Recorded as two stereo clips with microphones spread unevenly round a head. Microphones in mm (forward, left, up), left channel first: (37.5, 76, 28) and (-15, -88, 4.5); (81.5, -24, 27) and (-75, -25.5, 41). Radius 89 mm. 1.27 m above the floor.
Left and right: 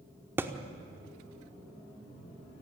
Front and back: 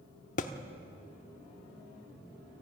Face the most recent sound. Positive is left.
turn(degrees=-25)